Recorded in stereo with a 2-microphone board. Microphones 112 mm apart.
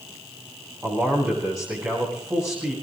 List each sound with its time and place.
0.8 s a man speaking: 20° right (ahead or behind), 7.5 m